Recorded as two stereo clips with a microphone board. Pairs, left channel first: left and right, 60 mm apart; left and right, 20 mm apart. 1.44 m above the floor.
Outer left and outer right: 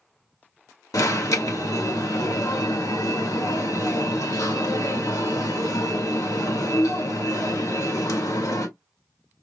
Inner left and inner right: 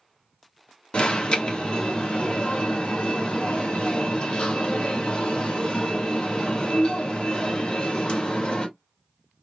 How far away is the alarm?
About 1.6 m.